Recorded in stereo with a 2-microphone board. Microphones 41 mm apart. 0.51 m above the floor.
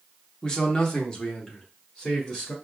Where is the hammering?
No hammering in this recording.